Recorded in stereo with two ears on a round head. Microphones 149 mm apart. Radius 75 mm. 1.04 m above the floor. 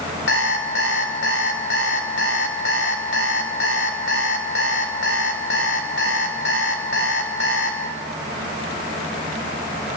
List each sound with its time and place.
0.3 s an alarm clock: 80° left, 3 m